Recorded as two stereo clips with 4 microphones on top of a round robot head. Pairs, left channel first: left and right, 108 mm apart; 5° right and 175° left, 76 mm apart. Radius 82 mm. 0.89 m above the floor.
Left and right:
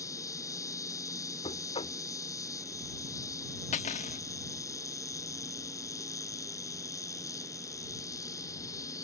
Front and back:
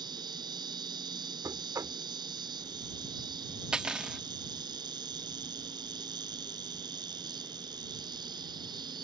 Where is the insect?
150° left.